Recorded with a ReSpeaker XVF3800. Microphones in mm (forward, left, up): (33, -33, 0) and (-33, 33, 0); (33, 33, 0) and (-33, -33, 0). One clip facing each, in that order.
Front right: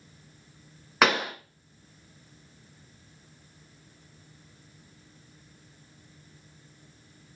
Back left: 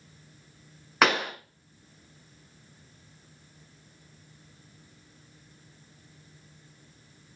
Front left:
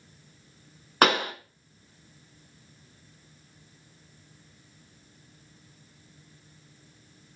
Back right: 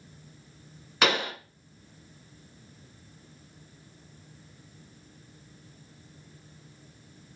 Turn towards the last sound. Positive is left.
turn(degrees=45)